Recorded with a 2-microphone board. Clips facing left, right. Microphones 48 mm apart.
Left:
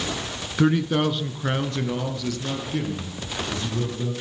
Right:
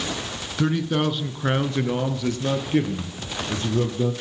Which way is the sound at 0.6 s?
15° left (ahead or behind).